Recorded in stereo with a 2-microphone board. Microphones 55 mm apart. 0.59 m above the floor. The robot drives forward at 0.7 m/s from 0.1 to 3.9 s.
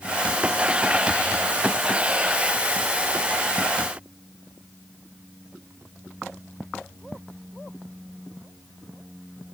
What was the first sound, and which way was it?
Only background noise.